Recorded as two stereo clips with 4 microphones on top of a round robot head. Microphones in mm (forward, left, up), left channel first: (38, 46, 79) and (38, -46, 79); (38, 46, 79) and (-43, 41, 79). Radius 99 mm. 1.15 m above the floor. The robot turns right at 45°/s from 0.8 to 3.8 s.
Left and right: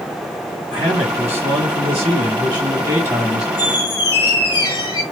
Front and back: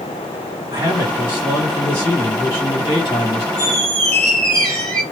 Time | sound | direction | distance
0.7 | a man speaking | 125° right | 2 m
3.6 | a squeak | 70° left | 0.5 m